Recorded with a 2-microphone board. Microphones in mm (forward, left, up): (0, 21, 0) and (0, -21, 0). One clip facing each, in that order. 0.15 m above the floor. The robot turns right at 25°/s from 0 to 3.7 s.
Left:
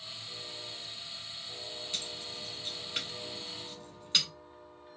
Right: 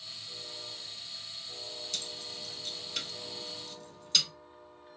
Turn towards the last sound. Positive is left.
turn(degrees=30)  # may be behind; listen again after turning